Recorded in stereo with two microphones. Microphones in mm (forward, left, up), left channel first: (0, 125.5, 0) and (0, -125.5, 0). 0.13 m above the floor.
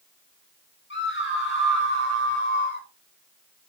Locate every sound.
0.9 s a scream: 50° left (ahead or behind), 4 m; by 2.9 s 45° left (ahead or behind), 5 m